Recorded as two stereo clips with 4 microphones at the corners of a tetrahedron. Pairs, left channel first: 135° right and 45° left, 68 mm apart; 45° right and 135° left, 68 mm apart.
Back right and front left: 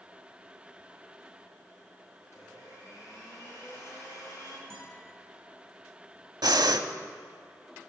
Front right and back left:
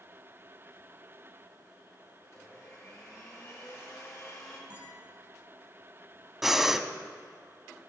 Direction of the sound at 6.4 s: 50° left.